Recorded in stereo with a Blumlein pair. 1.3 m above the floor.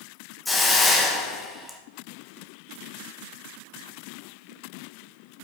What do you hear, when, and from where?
0.5 s a hiss: 5° left, 1.1 m